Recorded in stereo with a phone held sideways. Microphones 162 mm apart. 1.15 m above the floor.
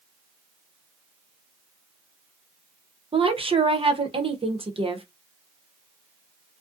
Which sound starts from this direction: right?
A woman speaking, at 3.1 s.